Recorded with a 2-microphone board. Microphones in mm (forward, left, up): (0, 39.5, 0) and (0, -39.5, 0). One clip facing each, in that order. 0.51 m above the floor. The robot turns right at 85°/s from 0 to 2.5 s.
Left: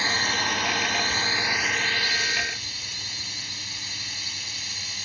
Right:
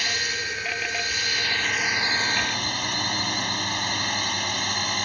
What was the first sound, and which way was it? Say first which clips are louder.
A drone: left 3 dB; 35° left.